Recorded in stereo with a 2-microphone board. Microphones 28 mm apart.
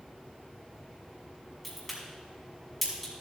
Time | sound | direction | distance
1.6 | a crack | centre (ahead or behind) | 6 m